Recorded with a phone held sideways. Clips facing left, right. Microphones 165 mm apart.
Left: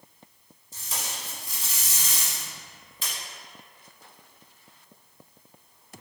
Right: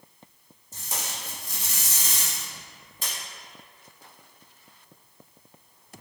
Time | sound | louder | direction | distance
0.7 | tape being pulled | right 1 dB | 45° right (ahead or behind) | 1.2 m